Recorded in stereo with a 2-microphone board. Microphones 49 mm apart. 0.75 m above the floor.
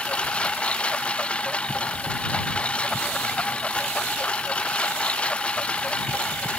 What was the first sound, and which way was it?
A lawn mower, 25° left (ahead or behind).